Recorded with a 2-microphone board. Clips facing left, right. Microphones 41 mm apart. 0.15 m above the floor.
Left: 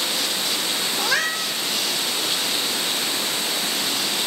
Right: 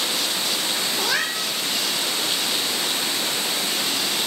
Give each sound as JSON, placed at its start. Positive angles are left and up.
{"t": 1.0, "sound": "a cat meowing", "side_deg": 0, "distance_m": 1.4}